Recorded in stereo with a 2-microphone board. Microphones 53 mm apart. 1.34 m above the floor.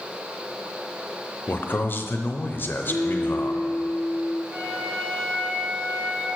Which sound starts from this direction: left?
A man speaking, at 1.5 s.